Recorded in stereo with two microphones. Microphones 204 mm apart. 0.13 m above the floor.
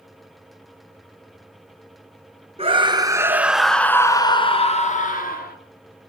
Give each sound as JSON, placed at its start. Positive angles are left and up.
{"t": 2.6, "sound": "a scream", "side_deg": -30, "distance_m": 1.4}